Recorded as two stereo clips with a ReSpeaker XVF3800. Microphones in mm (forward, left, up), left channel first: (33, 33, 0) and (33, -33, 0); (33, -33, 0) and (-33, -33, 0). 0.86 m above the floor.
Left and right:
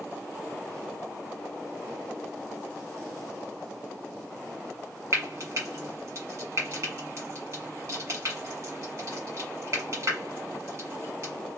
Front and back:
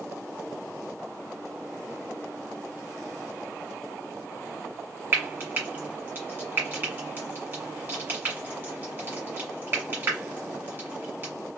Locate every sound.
5.1 s frying: 120° right, 1.7 m